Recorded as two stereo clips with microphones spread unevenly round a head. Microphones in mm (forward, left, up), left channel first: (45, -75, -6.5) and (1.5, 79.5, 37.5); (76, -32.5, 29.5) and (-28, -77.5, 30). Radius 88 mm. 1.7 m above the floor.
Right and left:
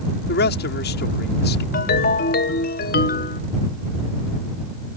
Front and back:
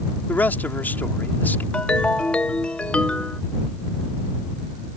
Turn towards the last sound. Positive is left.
turn(degrees=-55)